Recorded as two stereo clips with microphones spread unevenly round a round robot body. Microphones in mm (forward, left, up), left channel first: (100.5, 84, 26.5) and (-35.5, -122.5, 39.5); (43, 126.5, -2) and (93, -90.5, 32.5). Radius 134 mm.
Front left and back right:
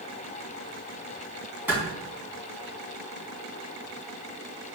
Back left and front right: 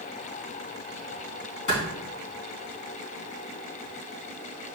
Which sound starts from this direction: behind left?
A clap, at 1.7 s.